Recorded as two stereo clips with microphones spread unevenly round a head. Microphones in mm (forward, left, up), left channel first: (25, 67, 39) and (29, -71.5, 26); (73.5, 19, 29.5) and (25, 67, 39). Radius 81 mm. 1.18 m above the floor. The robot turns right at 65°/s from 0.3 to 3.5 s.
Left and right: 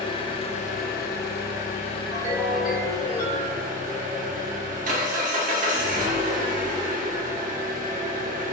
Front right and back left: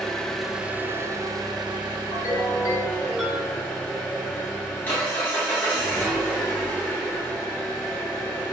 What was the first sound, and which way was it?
An engine running, 35° left.